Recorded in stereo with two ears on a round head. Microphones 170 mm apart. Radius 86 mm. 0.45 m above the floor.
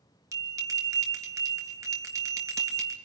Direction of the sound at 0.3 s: 20° right (ahead or behind).